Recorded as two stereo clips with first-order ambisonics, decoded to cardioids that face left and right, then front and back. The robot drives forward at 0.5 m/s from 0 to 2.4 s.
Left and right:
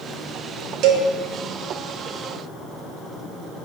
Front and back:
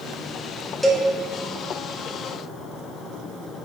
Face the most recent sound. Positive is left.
turn(degrees=-135)